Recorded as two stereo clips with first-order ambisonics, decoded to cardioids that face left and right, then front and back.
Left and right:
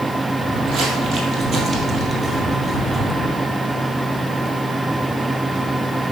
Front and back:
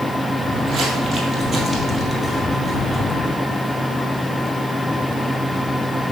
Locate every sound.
0.4 s footsteps: 130° right, 2.0 m; by 3.3 s 10° left, 1.5 m